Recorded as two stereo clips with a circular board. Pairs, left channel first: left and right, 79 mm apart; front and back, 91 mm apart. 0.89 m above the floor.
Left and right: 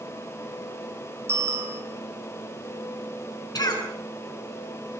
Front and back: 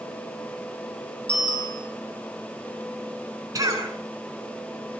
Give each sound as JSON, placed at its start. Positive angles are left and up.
{"t": 1.3, "sound": "a bicycle bell", "azimuth_deg": -35, "distance_m": 7.0}
{"t": 3.5, "sound": "a cough", "azimuth_deg": 125, "distance_m": 8.5}